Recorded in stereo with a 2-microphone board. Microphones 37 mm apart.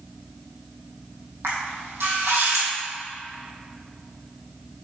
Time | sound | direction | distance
1.4 | a camera shutter | 70° right (ahead or behind) | 3 m